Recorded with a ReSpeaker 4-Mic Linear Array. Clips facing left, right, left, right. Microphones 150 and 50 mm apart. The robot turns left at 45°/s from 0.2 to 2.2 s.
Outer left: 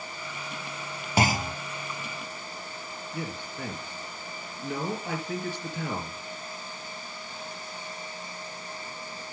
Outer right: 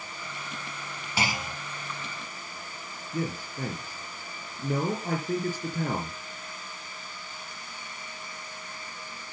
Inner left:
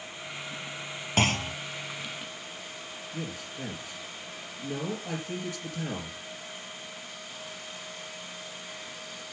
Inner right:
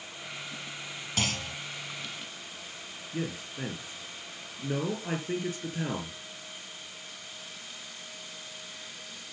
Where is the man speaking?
40° right (ahead or behind), 4.5 m.